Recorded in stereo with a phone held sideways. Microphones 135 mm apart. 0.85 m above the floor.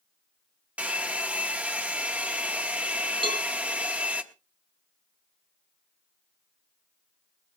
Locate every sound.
0.8 s a hair dryer: 10° right (ahead or behind), 0.9 m
3.2 s a cowbell: 45° right (ahead or behind), 2 m